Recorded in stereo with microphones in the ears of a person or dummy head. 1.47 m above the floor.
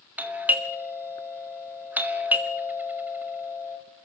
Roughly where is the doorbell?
Centre.